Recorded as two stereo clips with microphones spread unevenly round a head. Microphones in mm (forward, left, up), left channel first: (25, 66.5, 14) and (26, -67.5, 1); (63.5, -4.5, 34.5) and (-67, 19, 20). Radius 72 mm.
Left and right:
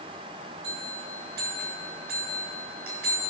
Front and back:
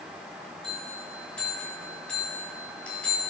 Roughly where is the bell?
Right.